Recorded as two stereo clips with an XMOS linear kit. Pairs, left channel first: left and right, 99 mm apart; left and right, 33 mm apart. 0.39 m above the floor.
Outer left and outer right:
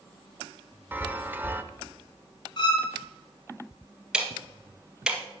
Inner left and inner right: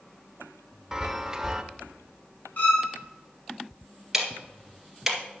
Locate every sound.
0.9 s a chime: 20° right (ahead or behind), 0.7 m
2.6 s a violin: 50° left (ahead or behind), 3.5 m
4.1 s ticking: 10° right (ahead or behind), 1.8 m